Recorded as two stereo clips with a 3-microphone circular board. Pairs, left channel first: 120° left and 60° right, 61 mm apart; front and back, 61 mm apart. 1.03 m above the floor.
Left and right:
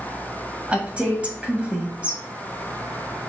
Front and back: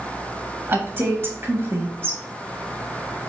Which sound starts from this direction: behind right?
A woman speaking, at 0.7 s.